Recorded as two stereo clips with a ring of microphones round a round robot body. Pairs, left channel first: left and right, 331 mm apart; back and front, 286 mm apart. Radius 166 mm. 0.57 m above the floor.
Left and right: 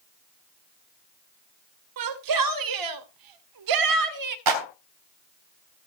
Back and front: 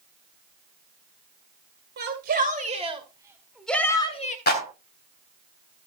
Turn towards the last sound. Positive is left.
turn(degrees=-120)